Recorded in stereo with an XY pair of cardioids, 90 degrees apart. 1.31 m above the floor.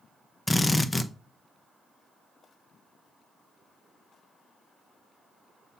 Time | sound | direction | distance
0.5 | a drill | 20° left | 0.7 m